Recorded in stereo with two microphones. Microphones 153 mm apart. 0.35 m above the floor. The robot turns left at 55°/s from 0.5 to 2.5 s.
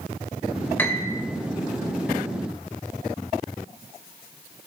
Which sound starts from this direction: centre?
A piano, at 0.8 s.